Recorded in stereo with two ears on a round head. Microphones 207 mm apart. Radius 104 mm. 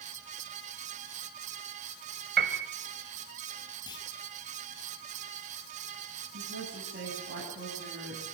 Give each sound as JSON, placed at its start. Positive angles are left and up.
{"t": 2.4, "sound": "a piano", "side_deg": -50, "distance_m": 2.0}
{"t": 3.9, "sound": "a clunk", "side_deg": 20, "distance_m": 6.0}
{"t": 6.3, "sound": "a woman speaking", "side_deg": -50, "distance_m": 9.0}